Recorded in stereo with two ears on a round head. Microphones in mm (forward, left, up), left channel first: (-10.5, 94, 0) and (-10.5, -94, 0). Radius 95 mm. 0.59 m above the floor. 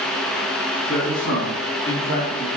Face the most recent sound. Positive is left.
turn(degrees=20)  # may be behind; listen again after turning